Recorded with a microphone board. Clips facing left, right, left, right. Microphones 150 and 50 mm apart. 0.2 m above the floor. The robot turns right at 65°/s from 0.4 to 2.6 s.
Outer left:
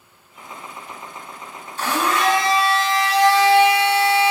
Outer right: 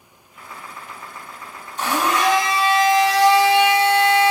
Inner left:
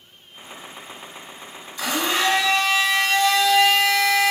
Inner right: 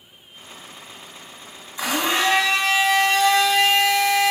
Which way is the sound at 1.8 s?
20° right (ahead or behind).